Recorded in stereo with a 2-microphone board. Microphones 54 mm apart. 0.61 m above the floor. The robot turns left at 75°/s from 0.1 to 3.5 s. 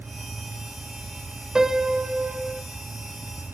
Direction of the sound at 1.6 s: 10° right (ahead or behind).